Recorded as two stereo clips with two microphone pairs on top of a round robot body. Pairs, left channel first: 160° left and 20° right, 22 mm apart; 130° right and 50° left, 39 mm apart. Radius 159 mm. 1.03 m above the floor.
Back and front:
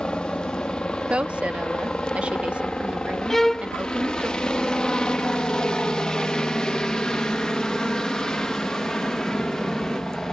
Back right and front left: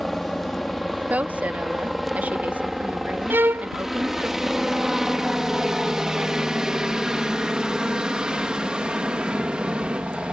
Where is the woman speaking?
5° right.